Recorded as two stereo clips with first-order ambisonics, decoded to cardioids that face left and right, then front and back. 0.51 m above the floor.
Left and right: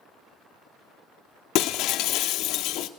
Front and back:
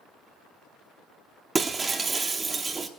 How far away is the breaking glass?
About 0.7 m.